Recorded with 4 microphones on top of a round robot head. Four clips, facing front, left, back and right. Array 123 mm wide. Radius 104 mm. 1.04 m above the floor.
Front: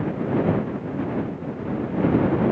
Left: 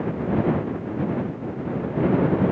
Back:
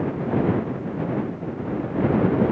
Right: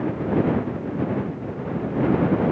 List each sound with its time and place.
Only background noise.